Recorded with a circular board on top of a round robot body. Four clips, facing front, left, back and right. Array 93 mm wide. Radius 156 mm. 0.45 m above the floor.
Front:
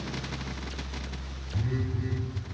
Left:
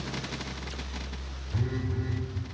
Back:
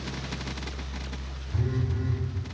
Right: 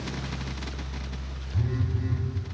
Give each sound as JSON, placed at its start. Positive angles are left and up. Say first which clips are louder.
{"t": 1.5, "sound": "a phone buzzing", "louder": "right 1 dB, back 1 dB", "azimuth_deg": 130, "distance_m": 3.0}